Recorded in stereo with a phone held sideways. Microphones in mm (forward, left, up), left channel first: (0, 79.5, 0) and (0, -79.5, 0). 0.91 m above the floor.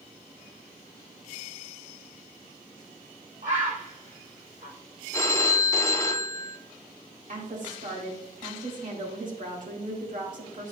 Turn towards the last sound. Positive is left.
turn(degrees=-60)  # may be behind; listen again after turning